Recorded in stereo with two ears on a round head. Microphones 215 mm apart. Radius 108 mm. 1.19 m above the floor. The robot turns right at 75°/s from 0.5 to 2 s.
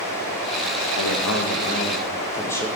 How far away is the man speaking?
About 1.2 m.